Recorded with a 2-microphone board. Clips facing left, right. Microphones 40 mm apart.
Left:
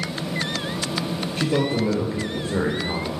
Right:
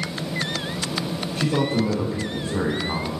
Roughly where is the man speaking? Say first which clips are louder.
Even; left.